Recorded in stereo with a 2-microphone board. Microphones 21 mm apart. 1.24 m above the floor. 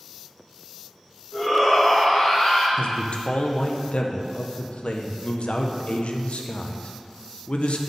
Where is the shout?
25° left (ahead or behind), 1.7 m; by 2.7 s 35° left (ahead or behind), 2.5 m.